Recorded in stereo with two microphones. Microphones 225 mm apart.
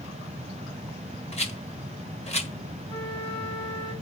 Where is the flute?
10° left (ahead or behind), 3.5 m.